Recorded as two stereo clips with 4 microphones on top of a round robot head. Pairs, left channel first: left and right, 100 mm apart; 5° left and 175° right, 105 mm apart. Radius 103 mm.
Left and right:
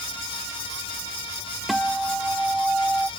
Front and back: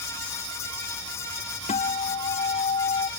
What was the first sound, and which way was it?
A guitar, straight ahead.